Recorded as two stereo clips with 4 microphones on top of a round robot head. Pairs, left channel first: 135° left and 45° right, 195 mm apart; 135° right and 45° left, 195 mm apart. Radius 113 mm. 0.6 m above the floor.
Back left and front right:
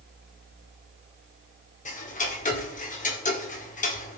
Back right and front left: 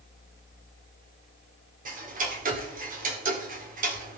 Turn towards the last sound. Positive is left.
turn(degrees=90)